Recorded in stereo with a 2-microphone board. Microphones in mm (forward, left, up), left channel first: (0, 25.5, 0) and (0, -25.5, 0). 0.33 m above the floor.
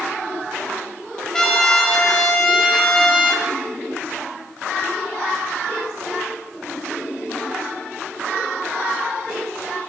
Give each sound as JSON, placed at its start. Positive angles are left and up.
{"t": 1.3, "sound": "a trumpet", "side_deg": 15, "distance_m": 0.8}